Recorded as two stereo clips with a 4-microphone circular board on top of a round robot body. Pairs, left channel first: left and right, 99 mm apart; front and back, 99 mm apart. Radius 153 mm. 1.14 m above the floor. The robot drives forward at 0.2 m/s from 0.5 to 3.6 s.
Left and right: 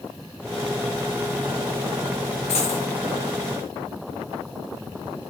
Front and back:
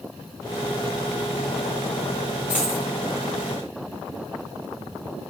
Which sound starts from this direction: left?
A dropped coin, at 2.5 s.